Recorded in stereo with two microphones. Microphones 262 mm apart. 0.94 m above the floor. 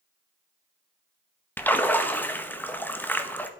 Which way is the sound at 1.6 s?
5° left (ahead or behind).